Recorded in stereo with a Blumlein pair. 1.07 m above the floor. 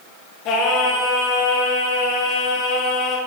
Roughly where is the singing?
Ahead left.